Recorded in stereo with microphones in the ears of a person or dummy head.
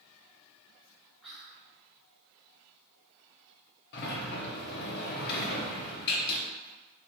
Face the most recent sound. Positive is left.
turn(degrees=55)  # may be behind; listen again after turning